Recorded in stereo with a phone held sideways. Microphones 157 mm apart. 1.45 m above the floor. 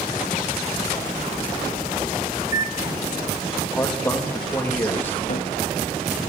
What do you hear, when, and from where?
2.4 s a microwave: 60° left (ahead or behind), 1.7 m
3.8 s a man speaking: 10° left (ahead or behind), 3 m
5.3 s a cupboard door: 55° left (ahead or behind), 1.1 m